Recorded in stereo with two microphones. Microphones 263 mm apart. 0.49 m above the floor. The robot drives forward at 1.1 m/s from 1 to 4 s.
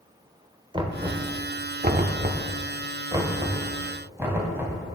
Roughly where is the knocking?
Centre.